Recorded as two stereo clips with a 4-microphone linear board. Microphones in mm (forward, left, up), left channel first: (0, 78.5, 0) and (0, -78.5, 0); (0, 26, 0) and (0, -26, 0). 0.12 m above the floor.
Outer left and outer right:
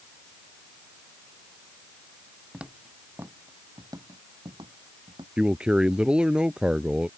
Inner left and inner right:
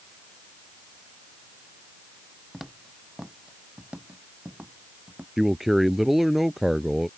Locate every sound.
2.5 s footsteps: 5° right (ahead or behind); by 5.3 s 30° right (ahead or behind)
5.4 s a man speaking: 5° right (ahead or behind)